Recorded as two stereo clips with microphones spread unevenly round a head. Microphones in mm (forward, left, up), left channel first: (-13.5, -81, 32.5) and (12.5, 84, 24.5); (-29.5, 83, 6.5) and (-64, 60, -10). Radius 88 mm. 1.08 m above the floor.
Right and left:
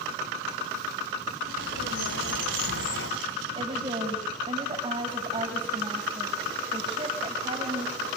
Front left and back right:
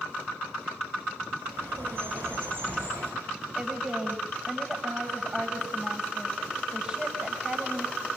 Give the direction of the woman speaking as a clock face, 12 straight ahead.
7 o'clock.